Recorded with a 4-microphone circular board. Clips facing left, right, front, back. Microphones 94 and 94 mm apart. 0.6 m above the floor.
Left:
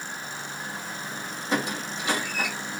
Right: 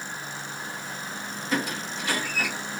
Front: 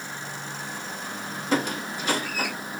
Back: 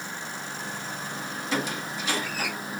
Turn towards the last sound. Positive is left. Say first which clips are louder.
# left 1 dB, front 4 dB
turn(degrees=30)